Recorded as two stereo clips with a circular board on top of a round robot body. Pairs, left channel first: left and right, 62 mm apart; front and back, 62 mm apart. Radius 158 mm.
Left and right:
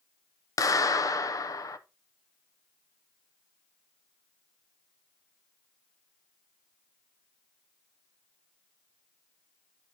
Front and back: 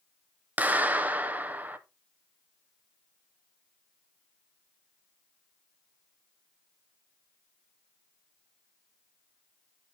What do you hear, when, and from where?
0.6 s a clap: 115° left, 0.8 m